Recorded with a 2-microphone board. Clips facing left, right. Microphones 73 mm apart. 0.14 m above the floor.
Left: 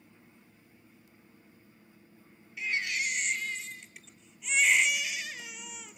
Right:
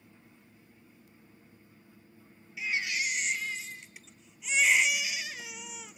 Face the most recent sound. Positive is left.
turn(degrees=-5)  # may be behind; listen again after turning